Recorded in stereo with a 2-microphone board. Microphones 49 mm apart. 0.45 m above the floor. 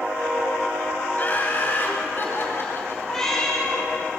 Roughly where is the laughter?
Left.